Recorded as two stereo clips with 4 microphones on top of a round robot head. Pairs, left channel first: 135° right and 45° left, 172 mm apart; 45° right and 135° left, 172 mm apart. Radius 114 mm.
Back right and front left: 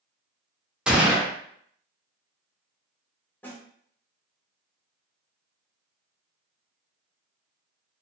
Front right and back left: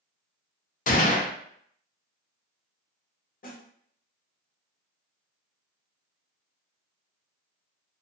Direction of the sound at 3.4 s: 60° right.